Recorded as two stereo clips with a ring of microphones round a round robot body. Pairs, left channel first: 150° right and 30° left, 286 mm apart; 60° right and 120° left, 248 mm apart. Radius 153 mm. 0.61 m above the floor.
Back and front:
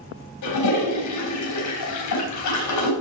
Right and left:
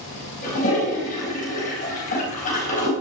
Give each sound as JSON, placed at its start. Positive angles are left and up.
{"t": 0.4, "sound": "a toilet flushing", "azimuth_deg": -125, "distance_m": 4.0}